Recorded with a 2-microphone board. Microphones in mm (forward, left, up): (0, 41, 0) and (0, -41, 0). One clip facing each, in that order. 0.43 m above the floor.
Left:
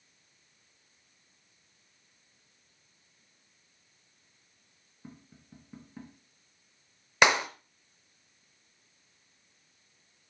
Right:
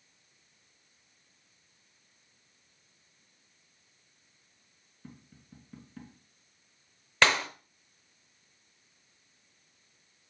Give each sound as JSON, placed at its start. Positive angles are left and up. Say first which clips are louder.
{"t": 5.0, "sound": "tapping", "louder": "left 1 dB", "side_deg": 15, "distance_m": 2.5}
{"t": 7.2, "sound": "a clap", "louder": "left 2 dB", "side_deg": 15, "distance_m": 0.9}